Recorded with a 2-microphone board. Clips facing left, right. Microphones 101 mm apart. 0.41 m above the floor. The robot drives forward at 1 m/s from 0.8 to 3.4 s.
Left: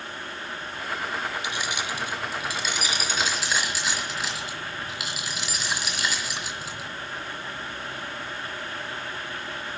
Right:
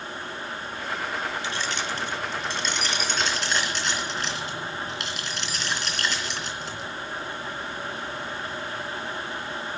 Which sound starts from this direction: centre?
Keys jangling, at 1.4 s.